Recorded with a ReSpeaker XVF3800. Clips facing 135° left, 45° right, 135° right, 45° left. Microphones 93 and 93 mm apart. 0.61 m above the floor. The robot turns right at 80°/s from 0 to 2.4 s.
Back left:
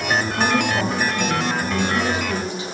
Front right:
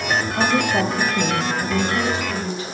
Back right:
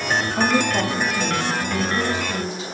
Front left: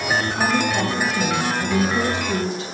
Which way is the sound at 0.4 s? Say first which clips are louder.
Front right 2 dB, back right 3 dB; 95° right.